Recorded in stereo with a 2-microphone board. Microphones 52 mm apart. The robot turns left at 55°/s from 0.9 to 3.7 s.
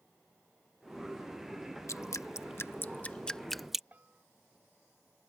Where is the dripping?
80° left; by 3.8 s 5° right (ahead or behind).